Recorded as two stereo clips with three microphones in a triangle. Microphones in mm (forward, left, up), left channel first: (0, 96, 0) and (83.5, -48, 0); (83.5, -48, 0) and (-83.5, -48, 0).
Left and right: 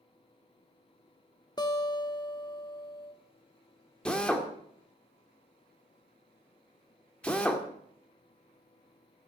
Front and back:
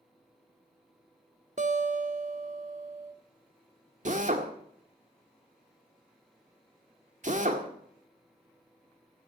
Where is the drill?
160° right, 1.8 m.